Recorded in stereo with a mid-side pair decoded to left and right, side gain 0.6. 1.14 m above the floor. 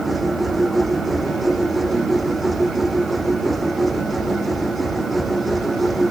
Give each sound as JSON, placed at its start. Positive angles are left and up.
{"t": 0.0, "sound": "a machine running", "azimuth_deg": -10}